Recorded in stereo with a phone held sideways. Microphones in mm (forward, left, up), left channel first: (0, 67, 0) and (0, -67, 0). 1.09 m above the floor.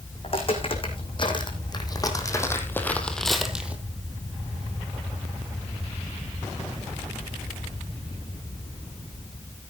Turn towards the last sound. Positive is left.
turn(degrees=-10)  # may be behind; listen again after turning